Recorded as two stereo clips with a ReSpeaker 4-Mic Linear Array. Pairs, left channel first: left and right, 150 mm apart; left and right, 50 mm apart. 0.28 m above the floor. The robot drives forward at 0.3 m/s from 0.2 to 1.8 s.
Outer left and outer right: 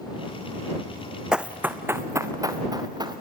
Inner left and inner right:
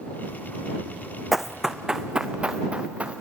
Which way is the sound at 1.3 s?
5° right (ahead or behind).